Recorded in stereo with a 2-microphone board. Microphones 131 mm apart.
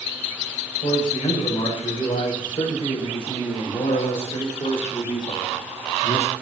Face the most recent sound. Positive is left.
turn(degrees=55)  # may be behind; listen again after turning